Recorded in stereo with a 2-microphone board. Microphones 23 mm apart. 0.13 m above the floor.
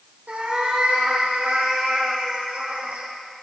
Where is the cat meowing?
75° right (ahead or behind), 3 m.